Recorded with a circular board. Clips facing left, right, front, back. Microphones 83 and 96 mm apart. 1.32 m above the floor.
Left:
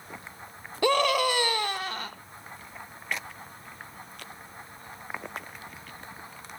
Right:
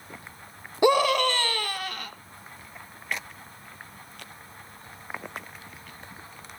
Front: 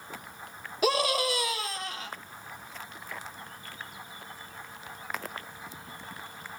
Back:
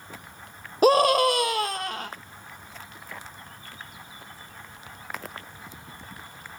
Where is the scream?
155° right, 0.7 m; by 2.1 s 150° left, 1.5 m.